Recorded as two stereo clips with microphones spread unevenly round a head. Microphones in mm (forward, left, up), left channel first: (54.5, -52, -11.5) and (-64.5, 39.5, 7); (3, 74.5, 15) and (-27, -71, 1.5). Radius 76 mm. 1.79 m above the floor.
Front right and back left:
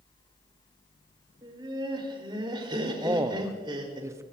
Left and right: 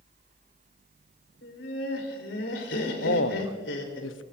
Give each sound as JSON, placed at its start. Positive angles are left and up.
{"t": 1.4, "sound": "laughter", "azimuth_deg": 80, "distance_m": 4.5}
{"t": 3.0, "sound": "a man speaking", "azimuth_deg": 70, "distance_m": 1.0}